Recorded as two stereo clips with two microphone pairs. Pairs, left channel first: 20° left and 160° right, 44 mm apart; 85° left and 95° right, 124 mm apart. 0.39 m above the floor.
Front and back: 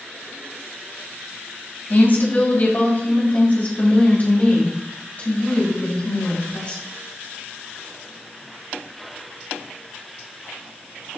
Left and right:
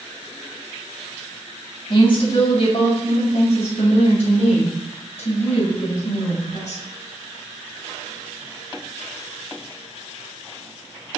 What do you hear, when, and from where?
1.9 s a woman speaking: 50° left, 2.5 m; by 6.8 s 75° left, 5 m